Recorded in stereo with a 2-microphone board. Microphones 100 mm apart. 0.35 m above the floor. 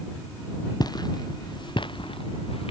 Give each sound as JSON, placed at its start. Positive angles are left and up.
{"t": 0.8, "sound": "footsteps", "side_deg": 40}